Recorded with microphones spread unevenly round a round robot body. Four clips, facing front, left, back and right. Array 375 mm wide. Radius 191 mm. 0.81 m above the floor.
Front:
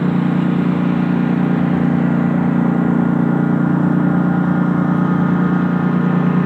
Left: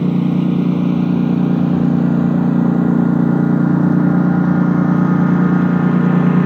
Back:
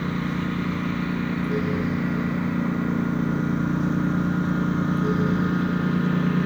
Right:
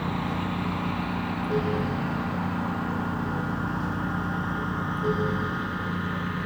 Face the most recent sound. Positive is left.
turn(degrees=65)